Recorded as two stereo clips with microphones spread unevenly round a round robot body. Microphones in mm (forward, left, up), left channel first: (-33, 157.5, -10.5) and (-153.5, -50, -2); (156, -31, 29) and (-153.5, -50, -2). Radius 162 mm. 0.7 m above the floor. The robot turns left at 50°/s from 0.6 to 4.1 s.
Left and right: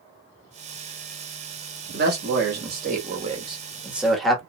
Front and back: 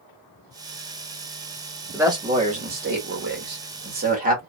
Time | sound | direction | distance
1.9 | a man speaking | 105° right | 1.2 m